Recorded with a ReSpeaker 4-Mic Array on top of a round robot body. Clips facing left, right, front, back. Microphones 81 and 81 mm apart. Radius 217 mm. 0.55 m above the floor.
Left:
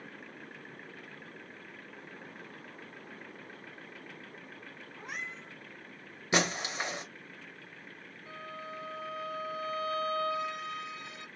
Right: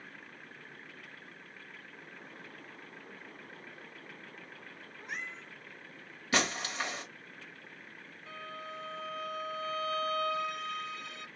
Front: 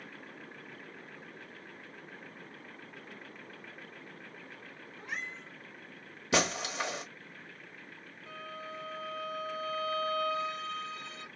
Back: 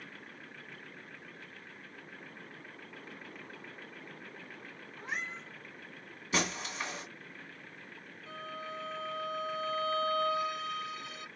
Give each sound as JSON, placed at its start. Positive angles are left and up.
{"t": 5.0, "sound": "a cat meowing", "azimuth_deg": 110, "distance_m": 1.4}
{"t": 6.3, "sound": "breaking glass", "azimuth_deg": 20, "distance_m": 0.9}
{"t": 8.3, "sound": "a violin", "azimuth_deg": 25, "distance_m": 1.5}